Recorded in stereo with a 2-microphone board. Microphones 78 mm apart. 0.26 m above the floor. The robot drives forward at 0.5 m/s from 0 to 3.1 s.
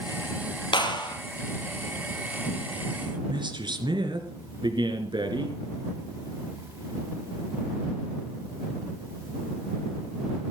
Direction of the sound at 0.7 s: 80° left.